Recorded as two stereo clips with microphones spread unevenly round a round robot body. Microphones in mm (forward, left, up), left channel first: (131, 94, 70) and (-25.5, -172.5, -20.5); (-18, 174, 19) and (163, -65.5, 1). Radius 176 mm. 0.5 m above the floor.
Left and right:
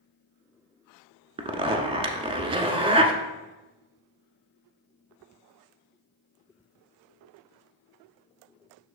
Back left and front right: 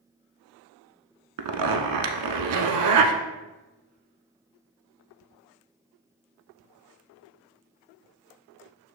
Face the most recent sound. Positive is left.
turn(degrees=-40)